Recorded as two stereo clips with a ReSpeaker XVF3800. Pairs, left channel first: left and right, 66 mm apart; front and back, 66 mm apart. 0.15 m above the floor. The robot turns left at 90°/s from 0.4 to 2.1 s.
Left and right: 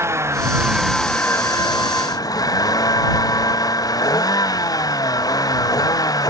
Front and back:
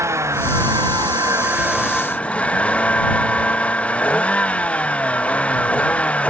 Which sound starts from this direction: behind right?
A vehicle, at 0.0 s.